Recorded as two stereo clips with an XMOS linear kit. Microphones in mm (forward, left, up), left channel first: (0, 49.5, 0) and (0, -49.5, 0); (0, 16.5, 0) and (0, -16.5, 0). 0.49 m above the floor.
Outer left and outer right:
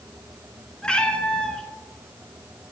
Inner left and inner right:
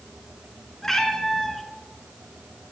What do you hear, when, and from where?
0.8 s a cat meowing: 10° left (ahead or behind), 1.2 m